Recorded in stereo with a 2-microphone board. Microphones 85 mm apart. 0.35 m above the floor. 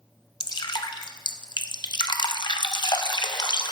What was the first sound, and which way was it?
Dripping, 65° left (ahead or behind).